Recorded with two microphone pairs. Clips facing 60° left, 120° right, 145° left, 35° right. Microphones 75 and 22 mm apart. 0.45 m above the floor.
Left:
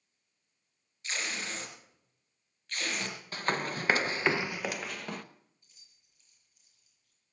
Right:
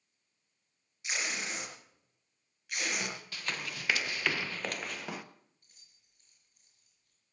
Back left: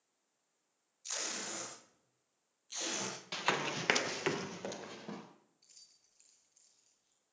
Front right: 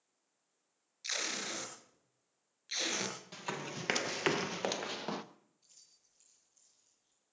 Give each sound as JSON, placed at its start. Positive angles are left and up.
{"t": 1.0, "sound": "tape being pulled", "azimuth_deg": -45, "distance_m": 4.0}
{"t": 3.3, "sound": "running footsteps", "azimuth_deg": 105, "distance_m": 0.8}
{"t": 5.6, "sound": "keys jangling", "azimuth_deg": -155, "distance_m": 8.0}